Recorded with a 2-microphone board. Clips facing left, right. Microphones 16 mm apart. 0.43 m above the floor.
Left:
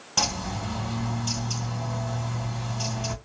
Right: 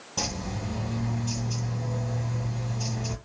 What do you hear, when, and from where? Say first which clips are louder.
0.2 s a bird: left 5 dB; 50° left (ahead or behind), 1.6 m